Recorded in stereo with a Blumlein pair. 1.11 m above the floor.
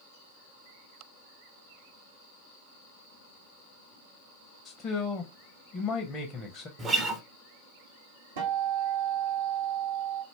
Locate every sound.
4.7 s a man speaking: 25° left, 0.6 m
6.8 s a guitar: 20° right, 0.6 m
8.4 s a guitar: 55° right, 1.0 m